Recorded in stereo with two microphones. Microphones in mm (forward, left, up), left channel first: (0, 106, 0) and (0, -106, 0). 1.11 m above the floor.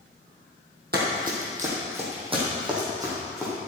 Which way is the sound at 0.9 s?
50° right (ahead or behind).